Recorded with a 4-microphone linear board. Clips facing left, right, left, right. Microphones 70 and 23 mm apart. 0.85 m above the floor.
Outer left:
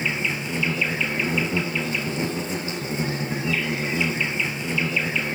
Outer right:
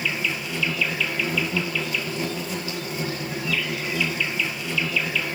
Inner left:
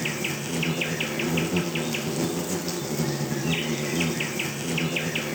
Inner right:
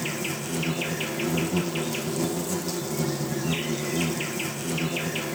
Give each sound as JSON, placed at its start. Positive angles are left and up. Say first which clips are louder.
{"t": 0.0, "sound": "an insect", "louder": "outer left 1 dB, inner left 1 dB", "side_deg": 25, "distance_m": 2.0}